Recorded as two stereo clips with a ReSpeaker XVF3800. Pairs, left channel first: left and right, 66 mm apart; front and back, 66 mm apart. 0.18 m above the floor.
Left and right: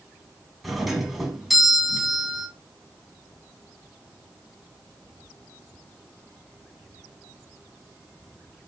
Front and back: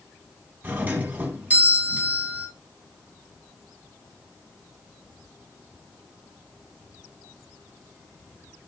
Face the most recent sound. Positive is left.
turn(degrees=180)